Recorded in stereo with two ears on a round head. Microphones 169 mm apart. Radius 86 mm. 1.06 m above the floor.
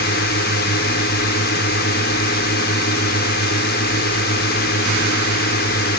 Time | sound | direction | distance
0.0 | a drone | 55° left (ahead or behind) | ?